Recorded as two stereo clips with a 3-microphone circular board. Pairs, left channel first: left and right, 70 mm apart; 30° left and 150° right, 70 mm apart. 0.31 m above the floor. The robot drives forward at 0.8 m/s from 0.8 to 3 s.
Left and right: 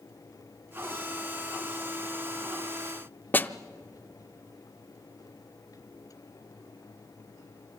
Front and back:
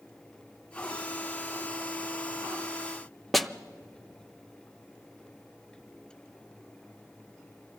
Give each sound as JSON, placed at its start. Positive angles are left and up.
{"t": 3.3, "sound": "a snare drum", "azimuth_deg": 115, "distance_m": 0.5}